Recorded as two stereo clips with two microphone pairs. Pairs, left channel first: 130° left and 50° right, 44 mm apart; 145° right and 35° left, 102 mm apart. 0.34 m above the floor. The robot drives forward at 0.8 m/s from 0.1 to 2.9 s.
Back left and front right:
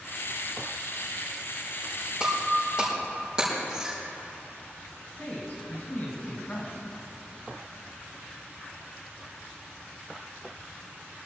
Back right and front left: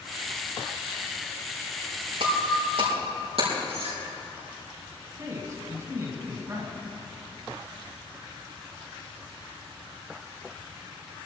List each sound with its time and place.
2.2 s breaking glass: 20° left, 6 m; by 4.0 s 25° left, 5.5 m
5.2 s a man speaking: 85° left, 3 m